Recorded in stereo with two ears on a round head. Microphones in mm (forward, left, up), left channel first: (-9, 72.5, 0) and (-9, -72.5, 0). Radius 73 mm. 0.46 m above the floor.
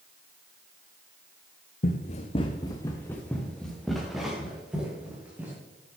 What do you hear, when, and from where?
1.8 s running footsteps: 55° left (ahead or behind), 1.5 m; by 5.6 s 10° right (ahead or behind), 5 m